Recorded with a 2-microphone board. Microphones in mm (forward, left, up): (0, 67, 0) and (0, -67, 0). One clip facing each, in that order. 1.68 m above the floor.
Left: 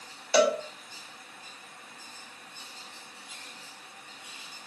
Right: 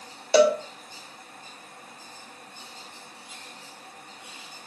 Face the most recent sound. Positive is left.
turn(degrees=-30)  # may be behind; listen again after turning